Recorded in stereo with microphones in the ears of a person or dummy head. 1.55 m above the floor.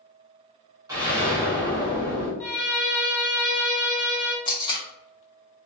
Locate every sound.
0.9 s an explosion: 15° right (ahead or behind), 0.9 m
2.4 s a violin: 10° left (ahead or behind), 0.5 m
4.5 s tape being pulled: 25° left (ahead or behind), 0.6 m